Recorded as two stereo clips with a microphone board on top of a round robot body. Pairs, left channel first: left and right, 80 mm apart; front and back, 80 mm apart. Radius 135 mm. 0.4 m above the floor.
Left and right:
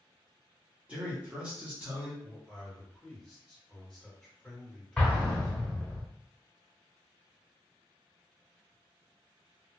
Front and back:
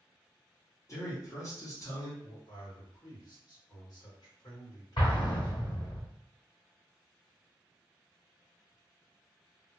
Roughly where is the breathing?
I don't hear breathing.